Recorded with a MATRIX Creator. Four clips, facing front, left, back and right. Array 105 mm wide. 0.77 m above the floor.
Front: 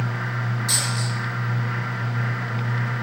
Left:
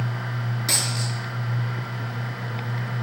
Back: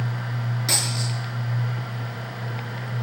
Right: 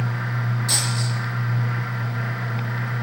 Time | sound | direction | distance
0.7 | a dropped coin | 140° left | 6.5 m